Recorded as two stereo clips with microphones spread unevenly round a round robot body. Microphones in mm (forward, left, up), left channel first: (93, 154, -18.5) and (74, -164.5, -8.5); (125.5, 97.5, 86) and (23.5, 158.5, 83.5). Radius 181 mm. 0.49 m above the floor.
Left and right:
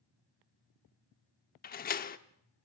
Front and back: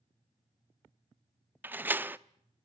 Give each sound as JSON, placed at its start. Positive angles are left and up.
{"t": 1.6, "sound": "a door slam", "azimuth_deg": 90, "distance_m": 0.7}